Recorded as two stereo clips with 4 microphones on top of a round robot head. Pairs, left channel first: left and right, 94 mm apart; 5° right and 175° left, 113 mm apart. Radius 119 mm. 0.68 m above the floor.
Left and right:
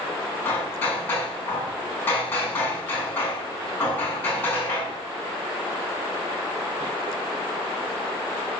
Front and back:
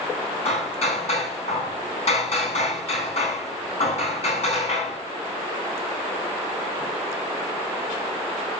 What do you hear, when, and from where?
0.5 s hammering: 20° left, 6 m